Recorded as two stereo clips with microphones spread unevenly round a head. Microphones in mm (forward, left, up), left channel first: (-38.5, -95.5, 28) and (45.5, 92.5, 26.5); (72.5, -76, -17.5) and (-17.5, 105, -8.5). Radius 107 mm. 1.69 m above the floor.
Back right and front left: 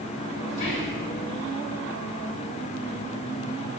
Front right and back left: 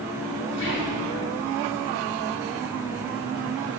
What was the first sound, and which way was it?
Whispering, 90° right.